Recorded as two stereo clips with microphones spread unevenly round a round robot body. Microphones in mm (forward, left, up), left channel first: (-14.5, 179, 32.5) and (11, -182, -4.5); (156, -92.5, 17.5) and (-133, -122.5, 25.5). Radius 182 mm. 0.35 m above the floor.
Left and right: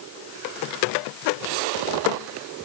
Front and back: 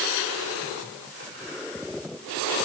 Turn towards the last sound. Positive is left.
No sound to turn to.